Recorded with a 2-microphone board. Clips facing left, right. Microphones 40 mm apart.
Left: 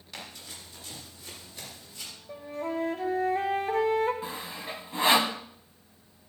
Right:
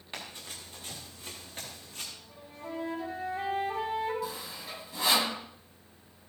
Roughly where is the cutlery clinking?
I don't hear cutlery clinking.